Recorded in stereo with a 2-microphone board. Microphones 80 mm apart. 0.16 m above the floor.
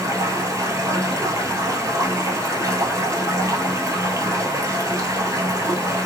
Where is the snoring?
I don't hear snoring.